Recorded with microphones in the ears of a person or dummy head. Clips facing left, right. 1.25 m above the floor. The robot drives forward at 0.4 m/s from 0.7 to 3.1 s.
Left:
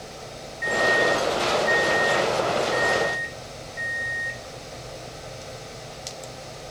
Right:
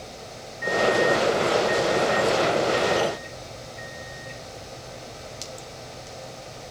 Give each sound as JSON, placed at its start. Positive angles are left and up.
{"t": 0.6, "sound": "a microwave", "side_deg": 40, "distance_m": 0.9}